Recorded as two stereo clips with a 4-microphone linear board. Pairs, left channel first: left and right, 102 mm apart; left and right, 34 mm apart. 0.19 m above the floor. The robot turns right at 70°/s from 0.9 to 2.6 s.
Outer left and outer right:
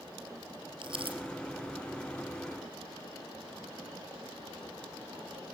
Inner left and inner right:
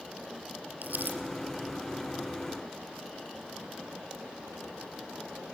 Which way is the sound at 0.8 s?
55° right (ahead or behind).